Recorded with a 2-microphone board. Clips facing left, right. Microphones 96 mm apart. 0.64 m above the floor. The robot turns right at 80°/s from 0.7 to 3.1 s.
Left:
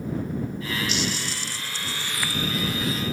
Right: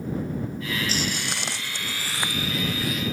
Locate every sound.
0.9 s footsteps: 40° right (ahead or behind); by 3.0 s 40° left (ahead or behind)